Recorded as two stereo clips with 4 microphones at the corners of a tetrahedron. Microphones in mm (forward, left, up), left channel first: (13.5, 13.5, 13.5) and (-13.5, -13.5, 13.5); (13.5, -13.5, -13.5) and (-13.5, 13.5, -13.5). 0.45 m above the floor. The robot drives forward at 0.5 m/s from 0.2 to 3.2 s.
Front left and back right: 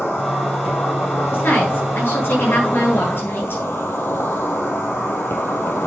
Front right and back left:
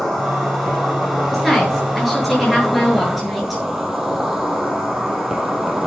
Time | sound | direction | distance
0.0 | an insect | 40° left | 5 m
1.3 | a woman speaking | 40° left | 9 m